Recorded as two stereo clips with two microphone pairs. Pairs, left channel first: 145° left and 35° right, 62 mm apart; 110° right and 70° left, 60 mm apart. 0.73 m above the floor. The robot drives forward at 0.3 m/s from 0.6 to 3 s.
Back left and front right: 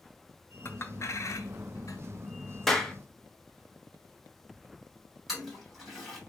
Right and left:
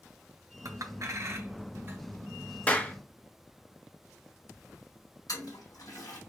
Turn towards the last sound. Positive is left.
turn(degrees=-125)